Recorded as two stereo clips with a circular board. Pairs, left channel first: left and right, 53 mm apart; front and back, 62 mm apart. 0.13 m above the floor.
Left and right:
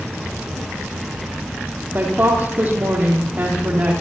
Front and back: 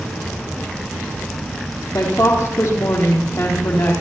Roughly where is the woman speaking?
Ahead right.